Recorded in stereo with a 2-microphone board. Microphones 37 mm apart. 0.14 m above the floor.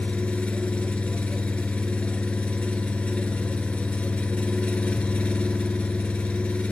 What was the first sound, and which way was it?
An engine running, 35° left (ahead or behind).